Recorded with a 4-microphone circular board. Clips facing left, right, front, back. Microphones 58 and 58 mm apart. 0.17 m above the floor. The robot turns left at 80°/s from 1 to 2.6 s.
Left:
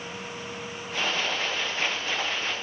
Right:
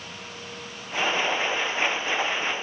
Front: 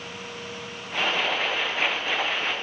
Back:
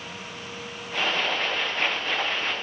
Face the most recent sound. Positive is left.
No sound to turn to.